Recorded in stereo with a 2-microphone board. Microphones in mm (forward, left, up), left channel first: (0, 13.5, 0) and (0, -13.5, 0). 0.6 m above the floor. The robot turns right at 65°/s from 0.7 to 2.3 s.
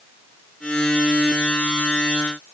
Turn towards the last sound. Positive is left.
No sound to turn to.